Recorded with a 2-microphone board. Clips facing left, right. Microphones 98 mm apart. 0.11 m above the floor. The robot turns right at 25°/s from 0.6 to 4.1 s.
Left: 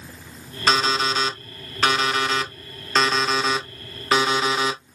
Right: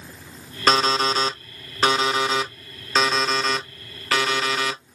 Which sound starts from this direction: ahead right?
An alarm clock, at 0.7 s.